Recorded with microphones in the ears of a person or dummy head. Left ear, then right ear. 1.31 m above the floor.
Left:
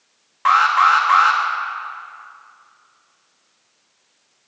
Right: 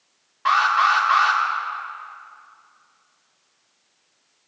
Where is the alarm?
35° left (ahead or behind), 3 m.